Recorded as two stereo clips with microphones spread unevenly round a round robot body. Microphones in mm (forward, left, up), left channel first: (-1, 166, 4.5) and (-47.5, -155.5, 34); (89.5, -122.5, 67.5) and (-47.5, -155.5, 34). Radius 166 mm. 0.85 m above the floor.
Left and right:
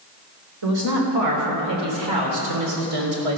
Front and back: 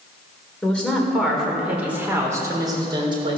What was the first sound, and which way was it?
A woman speaking, 70° right.